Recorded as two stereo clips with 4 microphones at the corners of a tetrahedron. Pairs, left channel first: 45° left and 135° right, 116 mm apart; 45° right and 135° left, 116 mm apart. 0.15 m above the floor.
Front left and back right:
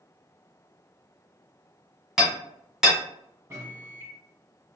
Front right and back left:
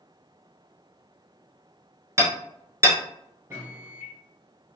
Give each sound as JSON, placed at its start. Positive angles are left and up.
{"t": 2.2, "sound": "hammering", "azimuth_deg": 140, "distance_m": 1.3}
{"t": 3.5, "sound": "a microwave", "azimuth_deg": 180, "distance_m": 1.1}